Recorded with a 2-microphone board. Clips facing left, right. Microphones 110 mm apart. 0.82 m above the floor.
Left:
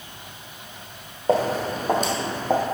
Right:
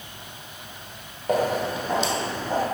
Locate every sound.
1.3 s footsteps: 30° left (ahead or behind), 1.0 m; by 2.6 s 55° left (ahead or behind), 1.5 m